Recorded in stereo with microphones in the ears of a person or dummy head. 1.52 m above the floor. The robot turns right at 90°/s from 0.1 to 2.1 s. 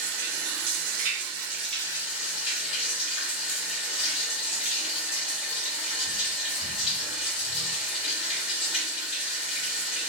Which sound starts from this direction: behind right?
Running water, at 0.0 s.